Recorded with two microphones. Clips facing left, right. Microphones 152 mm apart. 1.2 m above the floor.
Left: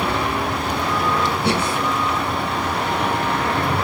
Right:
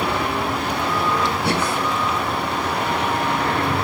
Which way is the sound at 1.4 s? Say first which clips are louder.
Left 1 dB; 20° left (ahead or behind).